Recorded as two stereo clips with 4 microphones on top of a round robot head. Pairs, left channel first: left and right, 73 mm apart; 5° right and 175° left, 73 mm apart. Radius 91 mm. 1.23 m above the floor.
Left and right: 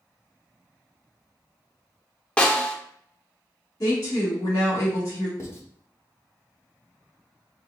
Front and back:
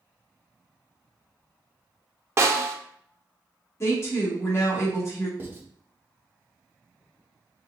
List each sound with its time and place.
2.4 s a snare drum: 160° left, 0.7 m
3.8 s a woman speaking: 45° left, 1.4 m
5.4 s writing: 125° left, 0.9 m